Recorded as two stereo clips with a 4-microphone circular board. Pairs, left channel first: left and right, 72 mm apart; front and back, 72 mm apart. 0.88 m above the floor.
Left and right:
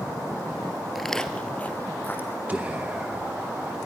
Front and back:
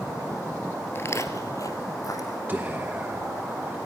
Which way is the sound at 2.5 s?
140° right.